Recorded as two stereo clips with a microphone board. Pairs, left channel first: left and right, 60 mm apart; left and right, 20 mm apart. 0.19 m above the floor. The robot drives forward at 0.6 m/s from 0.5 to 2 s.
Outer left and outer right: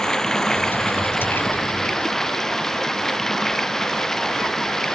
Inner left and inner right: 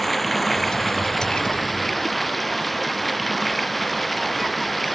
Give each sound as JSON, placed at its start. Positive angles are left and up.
{"t": 0.0, "sound": "running water", "side_deg": 10}